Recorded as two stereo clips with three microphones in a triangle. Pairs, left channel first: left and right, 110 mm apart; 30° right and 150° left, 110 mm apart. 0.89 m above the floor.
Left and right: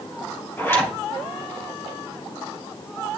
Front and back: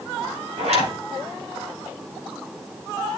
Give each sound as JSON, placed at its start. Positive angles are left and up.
{"t": 0.6, "sound": "a zipper", "azimuth_deg": 155, "distance_m": 3.5}